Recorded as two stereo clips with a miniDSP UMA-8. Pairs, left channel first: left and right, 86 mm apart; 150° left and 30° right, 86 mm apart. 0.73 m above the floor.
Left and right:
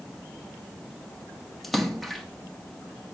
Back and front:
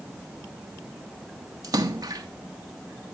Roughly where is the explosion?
I don't hear an explosion.